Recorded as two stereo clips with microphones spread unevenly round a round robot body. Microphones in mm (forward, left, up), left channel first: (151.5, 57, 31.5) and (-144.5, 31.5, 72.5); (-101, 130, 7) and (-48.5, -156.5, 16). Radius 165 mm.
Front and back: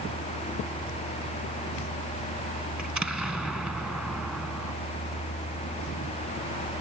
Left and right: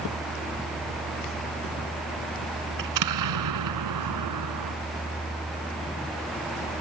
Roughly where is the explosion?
Right.